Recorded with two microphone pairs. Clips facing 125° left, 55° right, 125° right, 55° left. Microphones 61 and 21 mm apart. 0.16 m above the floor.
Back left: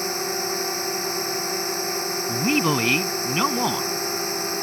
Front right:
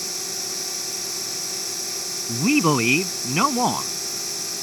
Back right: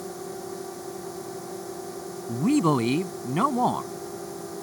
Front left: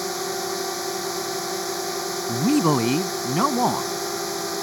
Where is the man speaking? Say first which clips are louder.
Front right 3 dB, front left 2 dB; 15° right.